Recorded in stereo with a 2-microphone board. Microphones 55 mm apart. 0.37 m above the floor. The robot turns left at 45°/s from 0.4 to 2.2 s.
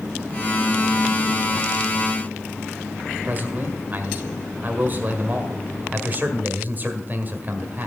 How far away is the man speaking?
About 1.8 m.